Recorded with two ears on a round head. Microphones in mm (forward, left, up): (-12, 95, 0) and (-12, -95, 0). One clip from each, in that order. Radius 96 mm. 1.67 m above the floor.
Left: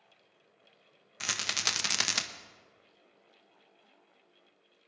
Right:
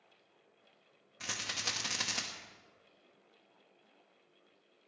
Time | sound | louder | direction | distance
1.2 | a rattle | left 6 dB | 45° left (ahead or behind) | 0.9 m